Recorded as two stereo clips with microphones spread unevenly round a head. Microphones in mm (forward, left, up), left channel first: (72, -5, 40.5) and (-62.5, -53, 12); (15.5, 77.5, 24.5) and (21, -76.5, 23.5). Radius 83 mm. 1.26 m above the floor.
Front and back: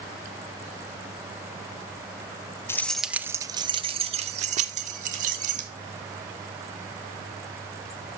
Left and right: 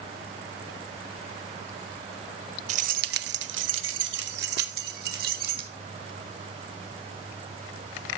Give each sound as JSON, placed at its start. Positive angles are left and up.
{"t": 2.7, "sound": "keys jangling", "azimuth_deg": -45, "distance_m": 0.5}